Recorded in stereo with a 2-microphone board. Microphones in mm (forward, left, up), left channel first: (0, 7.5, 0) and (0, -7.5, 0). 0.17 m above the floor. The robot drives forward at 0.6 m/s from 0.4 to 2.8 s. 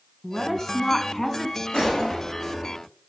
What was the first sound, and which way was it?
A woman speaking, 35° left (ahead or behind).